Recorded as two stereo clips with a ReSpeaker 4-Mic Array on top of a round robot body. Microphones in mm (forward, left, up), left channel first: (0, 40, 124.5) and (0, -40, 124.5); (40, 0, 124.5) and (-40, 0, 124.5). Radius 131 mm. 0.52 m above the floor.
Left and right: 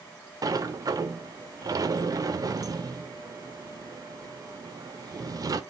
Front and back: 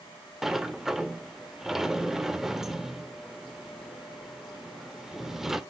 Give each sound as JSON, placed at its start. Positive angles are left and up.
{"t": 0.4, "sound": "a sliding door", "azimuth_deg": -95, "distance_m": 0.6}